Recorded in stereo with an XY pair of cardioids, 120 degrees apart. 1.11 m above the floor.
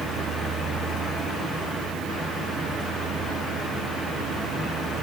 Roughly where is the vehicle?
Ahead right.